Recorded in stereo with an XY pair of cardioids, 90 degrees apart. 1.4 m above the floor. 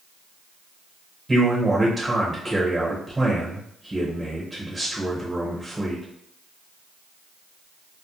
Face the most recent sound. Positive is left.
turn(degrees=-20)